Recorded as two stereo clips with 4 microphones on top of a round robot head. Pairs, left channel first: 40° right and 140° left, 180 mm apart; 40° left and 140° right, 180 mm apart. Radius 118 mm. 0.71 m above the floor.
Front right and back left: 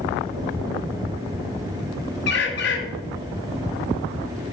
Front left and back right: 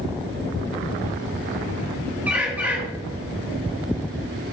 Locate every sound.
2.3 s a bird: 60° right, 0.8 m